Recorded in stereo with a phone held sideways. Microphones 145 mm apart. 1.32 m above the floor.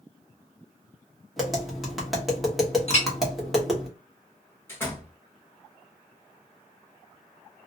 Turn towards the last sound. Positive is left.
turn(degrees=15)  # may be behind; listen again after turning